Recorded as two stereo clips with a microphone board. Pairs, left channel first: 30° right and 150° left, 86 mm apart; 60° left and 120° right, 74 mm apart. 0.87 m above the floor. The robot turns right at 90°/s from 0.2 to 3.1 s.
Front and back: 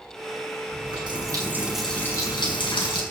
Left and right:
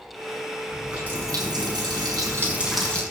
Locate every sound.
0.7 s a running tap: 145° left, 5.5 m; by 3.0 s 10° right, 5.5 m